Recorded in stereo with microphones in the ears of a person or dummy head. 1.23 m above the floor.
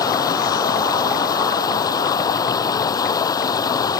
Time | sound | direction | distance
0.0 | running water | 15° left (ahead or behind) | ?